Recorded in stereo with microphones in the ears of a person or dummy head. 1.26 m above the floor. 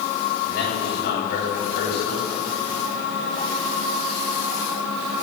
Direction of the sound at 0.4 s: 60° left (ahead or behind).